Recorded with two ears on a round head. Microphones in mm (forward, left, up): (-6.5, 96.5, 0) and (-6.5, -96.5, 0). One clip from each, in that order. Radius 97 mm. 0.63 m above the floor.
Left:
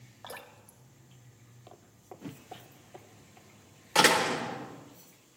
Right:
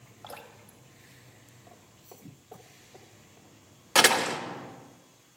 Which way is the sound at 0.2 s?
10° left (ahead or behind).